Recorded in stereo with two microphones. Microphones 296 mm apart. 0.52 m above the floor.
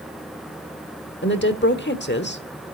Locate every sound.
1.2 s a woman speaking: 35° left (ahead or behind), 1.3 m